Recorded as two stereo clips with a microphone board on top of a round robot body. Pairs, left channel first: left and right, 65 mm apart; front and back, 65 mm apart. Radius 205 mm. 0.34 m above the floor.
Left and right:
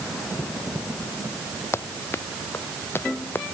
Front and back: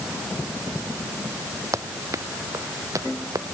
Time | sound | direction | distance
1.7 | running footsteps | 140° left | ?